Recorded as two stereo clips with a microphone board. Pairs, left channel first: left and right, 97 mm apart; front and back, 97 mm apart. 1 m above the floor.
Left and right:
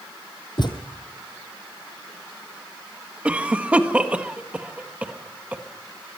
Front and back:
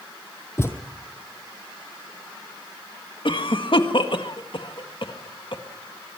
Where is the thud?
60° left, 2.0 m.